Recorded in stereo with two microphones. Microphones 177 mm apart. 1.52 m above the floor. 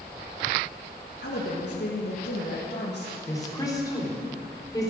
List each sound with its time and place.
1.2 s a woman speaking: 75° left (ahead or behind), 1.8 m
3.3 s a woman speaking: 20° left (ahead or behind), 3.5 m